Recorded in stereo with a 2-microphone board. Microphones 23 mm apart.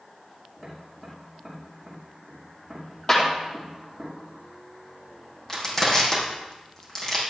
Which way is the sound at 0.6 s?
10° left (ahead or behind).